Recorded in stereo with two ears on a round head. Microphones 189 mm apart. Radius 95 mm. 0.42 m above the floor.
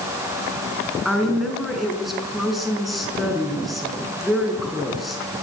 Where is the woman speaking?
Centre (ahead or behind), 5 m.